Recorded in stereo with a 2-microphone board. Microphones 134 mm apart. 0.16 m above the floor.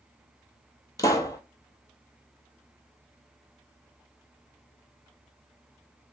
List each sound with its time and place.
1.0 s a pop: 25° left (ahead or behind), 0.6 m